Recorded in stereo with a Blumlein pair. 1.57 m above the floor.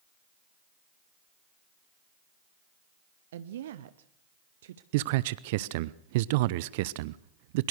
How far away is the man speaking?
About 0.6 m.